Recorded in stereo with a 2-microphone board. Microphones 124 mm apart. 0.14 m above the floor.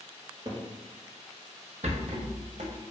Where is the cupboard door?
30° right (ahead or behind), 0.7 m.